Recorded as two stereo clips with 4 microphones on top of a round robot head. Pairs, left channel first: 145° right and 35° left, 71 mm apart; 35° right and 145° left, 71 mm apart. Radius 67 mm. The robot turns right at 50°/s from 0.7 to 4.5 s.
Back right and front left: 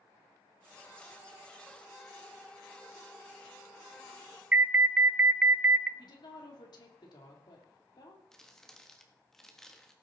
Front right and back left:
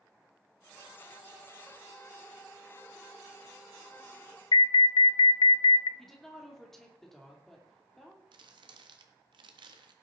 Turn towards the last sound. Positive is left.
turn(degrees=130)